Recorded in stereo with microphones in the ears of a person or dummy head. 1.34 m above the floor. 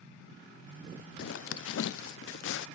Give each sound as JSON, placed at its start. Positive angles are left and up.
{"t": 1.2, "sound": "a zipper", "side_deg": 60, "distance_m": 0.5}